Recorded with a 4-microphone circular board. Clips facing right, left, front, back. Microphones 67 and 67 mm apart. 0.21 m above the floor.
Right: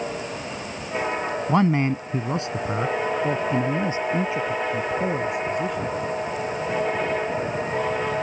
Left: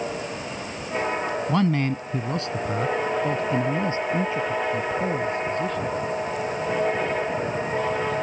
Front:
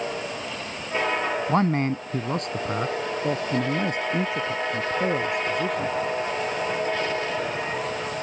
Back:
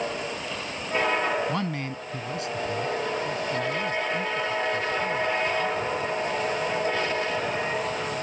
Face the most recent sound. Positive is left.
turn(degrees=-15)